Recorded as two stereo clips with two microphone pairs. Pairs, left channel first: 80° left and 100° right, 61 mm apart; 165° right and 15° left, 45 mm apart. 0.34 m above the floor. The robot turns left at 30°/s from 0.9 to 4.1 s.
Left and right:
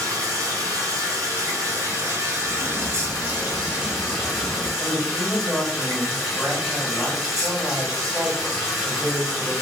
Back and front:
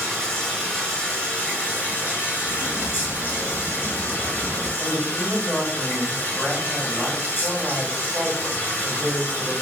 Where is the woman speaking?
Straight ahead, 1.3 m.